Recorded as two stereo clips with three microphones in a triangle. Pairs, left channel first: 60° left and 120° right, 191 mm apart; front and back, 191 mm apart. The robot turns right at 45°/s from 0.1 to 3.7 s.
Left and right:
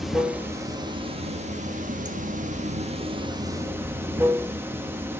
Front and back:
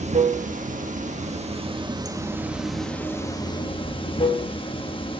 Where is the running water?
150° left, 1.0 m; by 5.2 s 45° right, 1.0 m.